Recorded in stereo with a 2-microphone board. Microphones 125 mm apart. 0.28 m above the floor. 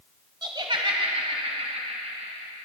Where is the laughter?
35° right (ahead or behind), 1.1 m; by 2.5 s 60° right (ahead or behind), 3 m.